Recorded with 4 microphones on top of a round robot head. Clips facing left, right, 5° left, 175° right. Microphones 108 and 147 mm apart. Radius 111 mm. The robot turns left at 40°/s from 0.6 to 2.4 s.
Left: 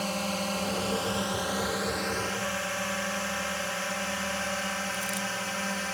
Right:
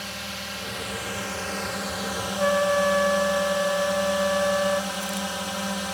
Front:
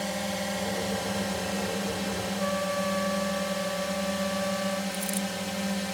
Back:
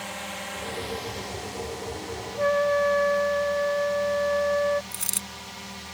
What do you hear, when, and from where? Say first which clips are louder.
0.0 s a drone: left 6 dB, front 6 dB; 50° left; by 5.9 s 20° right
2.4 s a trumpet: right 12 dB, back 10 dB; 125° right
4.9 s a dropped coin: right 4 dB, front 10 dB; 165° left